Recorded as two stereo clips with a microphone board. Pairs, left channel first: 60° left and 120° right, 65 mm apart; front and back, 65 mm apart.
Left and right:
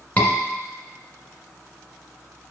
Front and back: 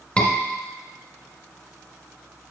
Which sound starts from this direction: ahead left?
A scream, at 0.2 s.